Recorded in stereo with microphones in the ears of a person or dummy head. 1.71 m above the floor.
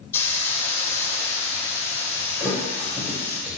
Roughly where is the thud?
Centre.